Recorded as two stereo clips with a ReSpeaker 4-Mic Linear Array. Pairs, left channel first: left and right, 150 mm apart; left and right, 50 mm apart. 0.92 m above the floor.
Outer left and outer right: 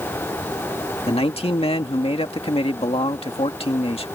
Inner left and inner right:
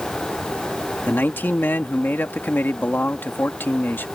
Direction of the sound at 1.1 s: 40° left (ahead or behind).